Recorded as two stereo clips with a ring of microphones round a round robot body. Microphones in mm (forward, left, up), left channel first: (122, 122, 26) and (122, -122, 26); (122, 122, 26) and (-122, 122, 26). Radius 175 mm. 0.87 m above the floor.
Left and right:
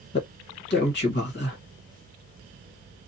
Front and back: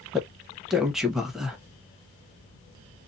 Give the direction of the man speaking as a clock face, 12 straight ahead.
9 o'clock.